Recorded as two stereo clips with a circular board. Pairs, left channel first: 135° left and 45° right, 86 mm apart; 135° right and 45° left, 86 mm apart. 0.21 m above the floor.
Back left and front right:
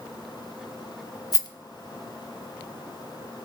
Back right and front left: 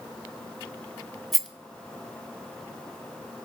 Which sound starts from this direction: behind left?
A rattle, at 1.3 s.